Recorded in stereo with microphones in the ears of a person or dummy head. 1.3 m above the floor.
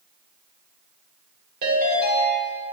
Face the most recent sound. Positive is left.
turn(degrees=-55)  # may be behind; listen again after turning